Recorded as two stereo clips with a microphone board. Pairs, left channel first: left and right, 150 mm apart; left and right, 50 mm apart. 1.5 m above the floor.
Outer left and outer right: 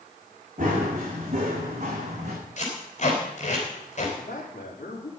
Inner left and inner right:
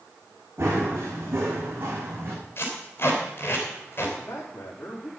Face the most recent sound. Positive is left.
turn(degrees=65)  # may be behind; listen again after turning